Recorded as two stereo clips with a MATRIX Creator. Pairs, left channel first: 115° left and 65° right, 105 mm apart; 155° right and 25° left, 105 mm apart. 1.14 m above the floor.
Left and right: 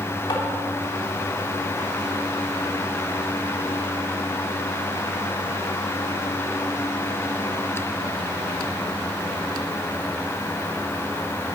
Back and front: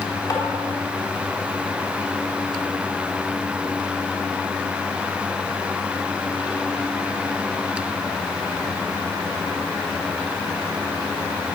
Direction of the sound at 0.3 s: 155° left.